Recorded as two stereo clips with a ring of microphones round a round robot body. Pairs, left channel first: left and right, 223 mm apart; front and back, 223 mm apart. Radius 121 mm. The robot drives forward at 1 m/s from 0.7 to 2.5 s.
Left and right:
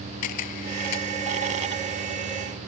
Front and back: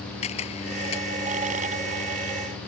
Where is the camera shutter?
65° left; by 1.1 s 70° left.